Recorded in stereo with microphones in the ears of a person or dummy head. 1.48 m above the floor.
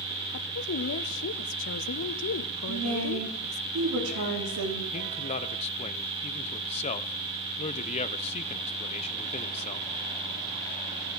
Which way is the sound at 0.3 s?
60° left (ahead or behind).